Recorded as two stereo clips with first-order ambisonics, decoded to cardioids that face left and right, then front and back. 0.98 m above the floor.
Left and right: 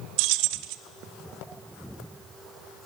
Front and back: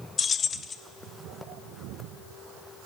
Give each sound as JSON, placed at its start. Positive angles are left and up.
{"t": 0.2, "sound": "keys jangling", "azimuth_deg": -70, "distance_m": 0.9}